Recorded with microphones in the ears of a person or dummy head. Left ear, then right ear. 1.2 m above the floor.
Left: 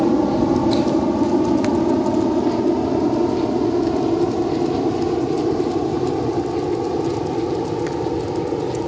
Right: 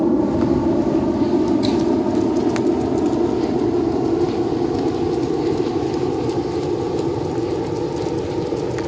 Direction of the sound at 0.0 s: 30° left (ahead or behind).